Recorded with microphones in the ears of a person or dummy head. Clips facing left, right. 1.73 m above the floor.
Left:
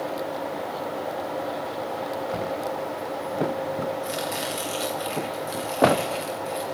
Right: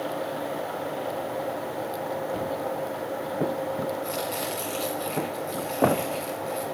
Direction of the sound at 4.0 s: 15° left (ahead or behind).